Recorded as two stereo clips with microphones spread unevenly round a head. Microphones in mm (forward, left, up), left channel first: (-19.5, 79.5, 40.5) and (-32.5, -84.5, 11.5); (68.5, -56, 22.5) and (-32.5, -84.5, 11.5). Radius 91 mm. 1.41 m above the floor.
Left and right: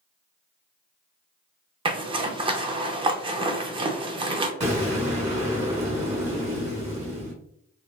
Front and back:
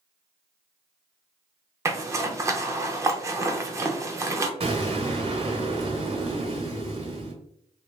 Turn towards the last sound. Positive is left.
turn(degrees=-145)